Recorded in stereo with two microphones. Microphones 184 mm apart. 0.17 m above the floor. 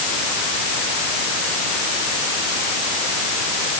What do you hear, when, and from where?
Only background noise.